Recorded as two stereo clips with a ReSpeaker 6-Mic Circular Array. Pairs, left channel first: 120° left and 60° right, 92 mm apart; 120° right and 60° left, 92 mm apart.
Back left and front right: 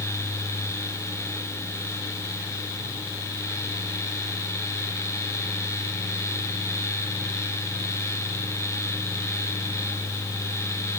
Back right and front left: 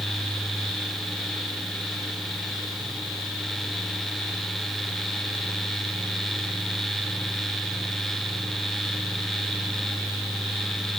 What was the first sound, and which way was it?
Only background noise.